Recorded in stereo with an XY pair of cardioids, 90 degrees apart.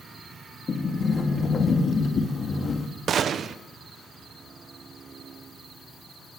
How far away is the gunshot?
About 1.0 m.